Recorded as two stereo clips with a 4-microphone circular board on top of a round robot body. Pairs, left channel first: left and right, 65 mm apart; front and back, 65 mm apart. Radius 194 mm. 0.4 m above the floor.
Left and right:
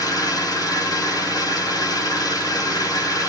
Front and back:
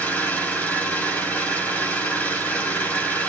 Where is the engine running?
65° left, 4 m.